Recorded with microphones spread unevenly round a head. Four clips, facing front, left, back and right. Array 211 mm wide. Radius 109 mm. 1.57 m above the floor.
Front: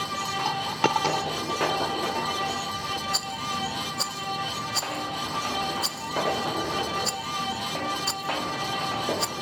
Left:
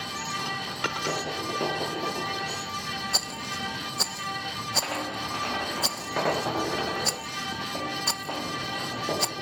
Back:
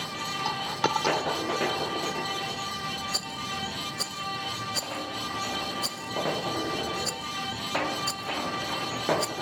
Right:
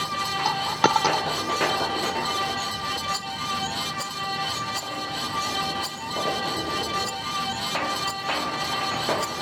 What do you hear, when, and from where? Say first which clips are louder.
0.5 s a dropped coin: right 10 dB, front 3 dB; 75° right
3.1 s a rattle: right 5 dB, front 4 dB; 115° left